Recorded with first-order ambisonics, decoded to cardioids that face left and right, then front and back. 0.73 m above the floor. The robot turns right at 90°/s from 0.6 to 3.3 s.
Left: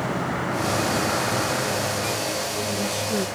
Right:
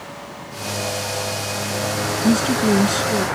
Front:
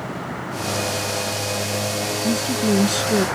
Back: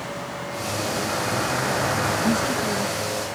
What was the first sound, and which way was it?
A vehicle, 70° left.